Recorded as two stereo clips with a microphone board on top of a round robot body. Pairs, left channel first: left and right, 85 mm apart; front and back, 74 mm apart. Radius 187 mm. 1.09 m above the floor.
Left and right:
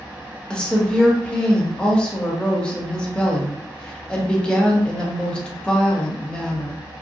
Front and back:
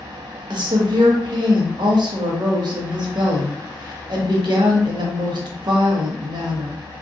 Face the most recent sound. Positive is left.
turn(degrees=170)